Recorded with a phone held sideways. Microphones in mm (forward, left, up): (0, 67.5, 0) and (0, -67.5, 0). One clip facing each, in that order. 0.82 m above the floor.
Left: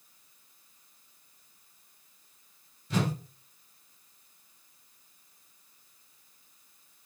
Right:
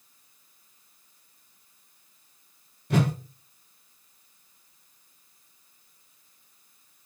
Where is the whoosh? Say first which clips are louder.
Right 5 dB; 60° right (ahead or behind), 0.8 m.